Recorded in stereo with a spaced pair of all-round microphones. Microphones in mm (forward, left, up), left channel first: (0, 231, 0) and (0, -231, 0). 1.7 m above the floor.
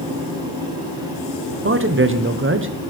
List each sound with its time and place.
0.0 s a fan: 10° right (ahead or behind), 5 m
1.6 s a man speaking: 25° right (ahead or behind), 1.0 m